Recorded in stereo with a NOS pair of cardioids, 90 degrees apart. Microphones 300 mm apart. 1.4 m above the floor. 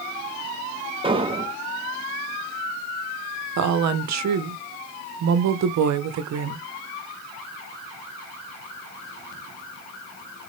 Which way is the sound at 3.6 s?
60° right.